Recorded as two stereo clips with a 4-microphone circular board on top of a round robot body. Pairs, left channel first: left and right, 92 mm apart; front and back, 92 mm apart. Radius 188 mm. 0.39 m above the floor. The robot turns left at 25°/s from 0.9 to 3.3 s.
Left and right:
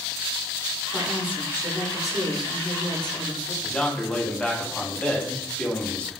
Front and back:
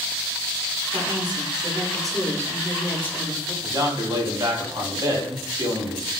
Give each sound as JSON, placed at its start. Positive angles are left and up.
{"t": 0.9, "sound": "a woman speaking", "azimuth_deg": 165, "distance_m": 1.2}
{"t": 3.6, "sound": "a man speaking", "azimuth_deg": 165, "distance_m": 1.2}